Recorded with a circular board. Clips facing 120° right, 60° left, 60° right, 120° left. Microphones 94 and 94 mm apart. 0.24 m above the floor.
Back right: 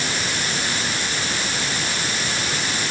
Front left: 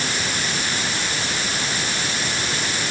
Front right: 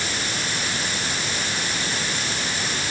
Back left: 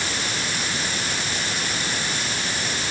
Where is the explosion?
I don't hear an explosion.